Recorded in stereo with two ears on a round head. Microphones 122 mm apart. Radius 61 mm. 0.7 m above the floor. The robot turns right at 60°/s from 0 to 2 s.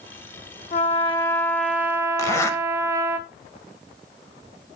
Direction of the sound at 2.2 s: 20° left (ahead or behind).